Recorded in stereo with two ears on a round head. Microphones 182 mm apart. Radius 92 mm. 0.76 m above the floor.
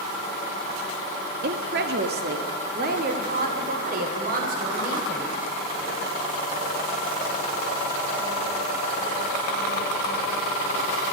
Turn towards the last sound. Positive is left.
turn(degrees=-45)  # may be behind; listen again after turning